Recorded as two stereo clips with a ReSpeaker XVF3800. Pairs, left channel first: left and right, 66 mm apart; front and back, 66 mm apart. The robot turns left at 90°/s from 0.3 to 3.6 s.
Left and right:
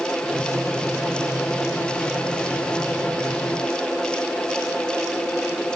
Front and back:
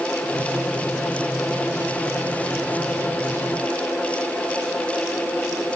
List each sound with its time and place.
Only background noise.